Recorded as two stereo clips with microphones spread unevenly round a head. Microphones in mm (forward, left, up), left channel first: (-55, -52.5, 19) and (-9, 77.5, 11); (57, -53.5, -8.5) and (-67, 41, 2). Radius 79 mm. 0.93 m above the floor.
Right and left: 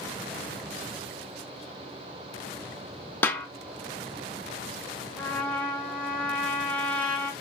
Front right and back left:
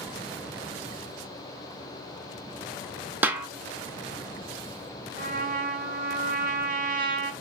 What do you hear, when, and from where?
3.2 s a snare drum: 160° right, 0.5 m
5.2 s a trumpet: 170° left, 1.1 m